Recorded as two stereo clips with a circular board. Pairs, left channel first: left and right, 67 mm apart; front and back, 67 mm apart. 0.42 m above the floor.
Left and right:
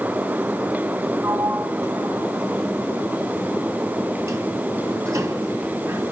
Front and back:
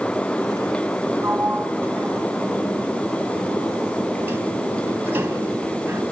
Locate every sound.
1.2 s a sliding door: 125° right, 3 m